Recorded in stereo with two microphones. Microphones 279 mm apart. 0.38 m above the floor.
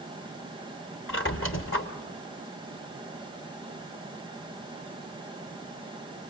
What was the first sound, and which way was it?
A squeak, 55° left (ahead or behind).